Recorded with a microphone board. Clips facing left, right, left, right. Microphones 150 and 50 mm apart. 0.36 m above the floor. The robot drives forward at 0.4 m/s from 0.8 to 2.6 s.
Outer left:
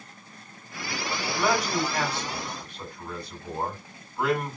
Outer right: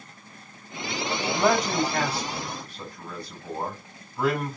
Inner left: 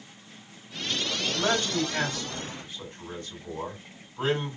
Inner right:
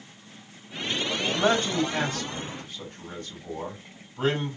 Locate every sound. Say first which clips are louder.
1.3 s a man speaking: outer right 3 dB, inner right 3 dB; 40° right (ahead or behind), 2 m; by 4.6 s 35° right (ahead or behind), 2.5 m